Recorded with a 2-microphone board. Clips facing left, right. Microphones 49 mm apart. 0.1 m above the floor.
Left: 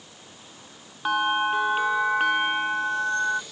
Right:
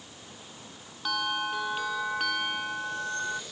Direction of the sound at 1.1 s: 30° left (ahead or behind).